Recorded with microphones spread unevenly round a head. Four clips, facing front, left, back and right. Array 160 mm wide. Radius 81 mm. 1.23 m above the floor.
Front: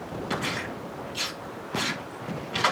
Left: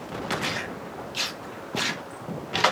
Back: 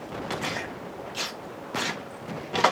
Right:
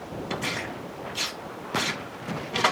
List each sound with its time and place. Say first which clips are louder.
0.3 s tearing paper: left 1 dB, front 2 dB; 175° left, 1.4 m